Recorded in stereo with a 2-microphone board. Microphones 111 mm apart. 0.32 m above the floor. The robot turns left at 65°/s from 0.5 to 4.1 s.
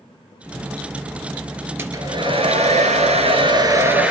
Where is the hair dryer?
20° right, 2.0 m; by 4.1 s 170° right, 2.0 m.